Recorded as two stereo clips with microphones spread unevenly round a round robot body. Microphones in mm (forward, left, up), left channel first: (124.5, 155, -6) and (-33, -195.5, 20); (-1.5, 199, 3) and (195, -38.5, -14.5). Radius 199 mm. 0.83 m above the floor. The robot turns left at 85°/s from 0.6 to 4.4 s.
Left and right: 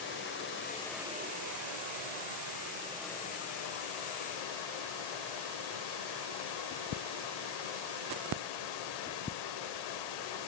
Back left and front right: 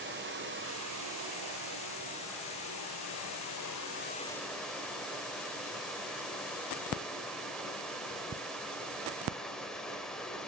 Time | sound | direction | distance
0.0 | running water | 5° left | 2 m